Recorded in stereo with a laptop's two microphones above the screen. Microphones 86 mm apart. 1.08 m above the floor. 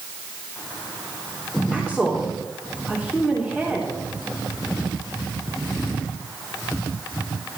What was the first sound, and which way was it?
A woman speaking, 5° left (ahead or behind).